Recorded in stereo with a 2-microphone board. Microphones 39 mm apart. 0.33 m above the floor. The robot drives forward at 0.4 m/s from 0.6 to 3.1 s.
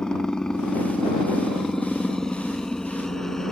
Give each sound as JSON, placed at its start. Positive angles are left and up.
{"t": 0.0, "sound": "a helicopter", "side_deg": 20}